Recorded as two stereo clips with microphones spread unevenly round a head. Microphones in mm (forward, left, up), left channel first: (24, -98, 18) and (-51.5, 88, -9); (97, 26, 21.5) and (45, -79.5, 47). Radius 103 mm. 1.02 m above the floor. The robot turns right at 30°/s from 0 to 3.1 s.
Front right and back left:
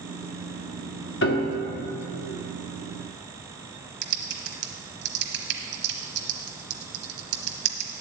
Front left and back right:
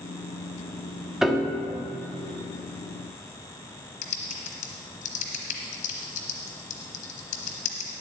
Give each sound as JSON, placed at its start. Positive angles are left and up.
{"t": 1.2, "sound": "a piano", "azimuth_deg": -30, "distance_m": 1.4}
{"t": 4.0, "sound": "typing on a keyboard", "azimuth_deg": 80, "distance_m": 1.2}